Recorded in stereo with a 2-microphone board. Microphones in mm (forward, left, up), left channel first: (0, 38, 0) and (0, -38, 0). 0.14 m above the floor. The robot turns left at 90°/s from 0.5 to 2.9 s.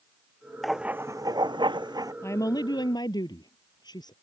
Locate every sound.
0.6 s writing: straight ahead; by 2.1 s 130° right
2.2 s a woman speaking: 140° left; by 4.1 s 80° left